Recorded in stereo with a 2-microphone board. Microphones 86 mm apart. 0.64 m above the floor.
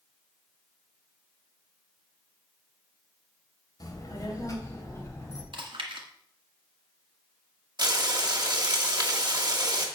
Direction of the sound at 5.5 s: 75° right (ahead or behind).